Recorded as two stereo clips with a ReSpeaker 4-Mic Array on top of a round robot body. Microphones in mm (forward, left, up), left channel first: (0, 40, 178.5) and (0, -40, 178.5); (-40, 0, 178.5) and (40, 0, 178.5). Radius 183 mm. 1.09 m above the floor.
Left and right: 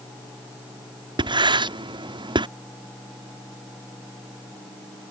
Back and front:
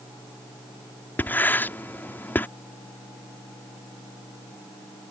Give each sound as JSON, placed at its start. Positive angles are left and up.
{"t": 1.2, "sound": "writing", "azimuth_deg": -110}